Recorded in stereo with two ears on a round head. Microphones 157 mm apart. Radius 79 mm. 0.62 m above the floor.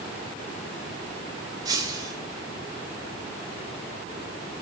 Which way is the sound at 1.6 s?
20° right (ahead or behind).